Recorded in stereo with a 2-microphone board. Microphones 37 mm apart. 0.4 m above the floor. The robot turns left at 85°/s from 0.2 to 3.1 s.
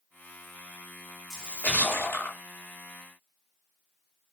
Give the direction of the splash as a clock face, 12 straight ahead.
6 o'clock.